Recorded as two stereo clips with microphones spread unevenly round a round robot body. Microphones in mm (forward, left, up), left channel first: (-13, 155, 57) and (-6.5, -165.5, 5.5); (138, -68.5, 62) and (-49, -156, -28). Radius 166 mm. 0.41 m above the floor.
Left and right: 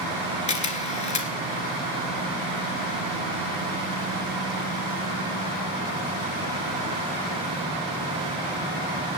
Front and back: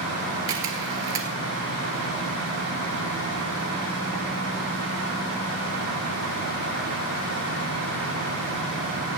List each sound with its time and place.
0.5 s a camera shutter: 160° left, 1.7 m